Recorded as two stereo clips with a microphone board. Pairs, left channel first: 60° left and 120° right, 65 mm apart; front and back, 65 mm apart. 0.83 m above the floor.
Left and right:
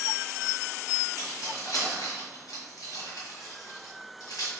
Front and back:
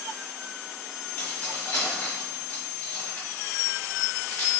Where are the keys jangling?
65° left, 1.7 m.